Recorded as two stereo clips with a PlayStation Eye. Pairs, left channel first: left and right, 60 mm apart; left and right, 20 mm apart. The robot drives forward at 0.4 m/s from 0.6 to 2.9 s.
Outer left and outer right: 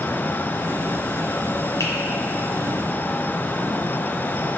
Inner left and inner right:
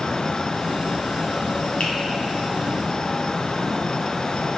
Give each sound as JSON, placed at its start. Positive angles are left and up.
{"t": 1.8, "sound": "a finger snap", "side_deg": 55, "distance_m": 1.5}